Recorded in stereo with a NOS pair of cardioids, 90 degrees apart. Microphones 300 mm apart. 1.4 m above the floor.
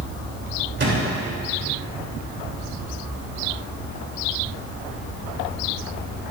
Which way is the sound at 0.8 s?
40° right.